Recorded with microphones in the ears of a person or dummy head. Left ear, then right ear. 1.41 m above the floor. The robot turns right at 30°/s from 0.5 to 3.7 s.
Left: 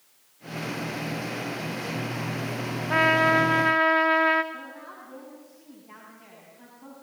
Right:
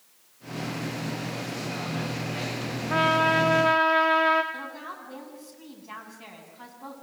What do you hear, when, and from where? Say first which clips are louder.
2.9 s a trumpet: left 2 dB; 25° left (ahead or behind), 1.5 m; by 4.4 s 5° left (ahead or behind), 1.5 m
4.5 s a woman speaking: right 3 dB; 35° right (ahead or behind), 9 m